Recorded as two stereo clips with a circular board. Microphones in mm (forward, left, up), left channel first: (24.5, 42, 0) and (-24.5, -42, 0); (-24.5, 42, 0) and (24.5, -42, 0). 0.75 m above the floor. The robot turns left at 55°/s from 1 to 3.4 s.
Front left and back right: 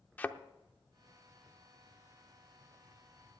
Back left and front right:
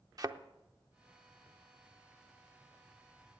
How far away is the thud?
About 0.6 m.